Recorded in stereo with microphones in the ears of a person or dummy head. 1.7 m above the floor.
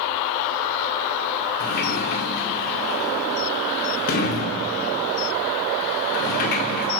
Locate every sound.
1.6 s a sliding door: 45° left (ahead or behind), 1.9 m